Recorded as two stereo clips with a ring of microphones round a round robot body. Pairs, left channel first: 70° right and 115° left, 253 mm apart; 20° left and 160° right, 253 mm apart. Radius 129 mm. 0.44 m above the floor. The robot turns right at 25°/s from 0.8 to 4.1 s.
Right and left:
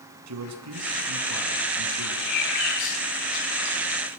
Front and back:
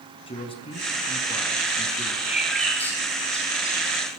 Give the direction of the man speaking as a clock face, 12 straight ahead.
9 o'clock.